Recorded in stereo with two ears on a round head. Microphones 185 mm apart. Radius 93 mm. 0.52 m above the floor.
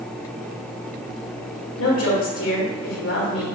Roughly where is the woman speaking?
Left.